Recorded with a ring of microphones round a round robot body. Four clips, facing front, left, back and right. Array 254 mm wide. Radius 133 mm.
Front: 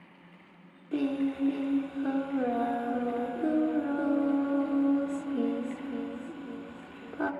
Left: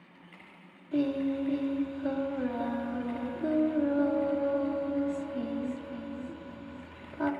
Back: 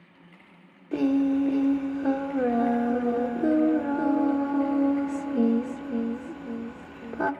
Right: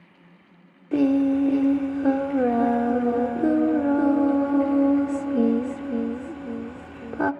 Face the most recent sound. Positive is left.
turn(degrees=-110)